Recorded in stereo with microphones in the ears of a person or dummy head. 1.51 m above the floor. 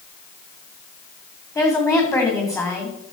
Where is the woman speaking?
20° left (ahead or behind), 3 m.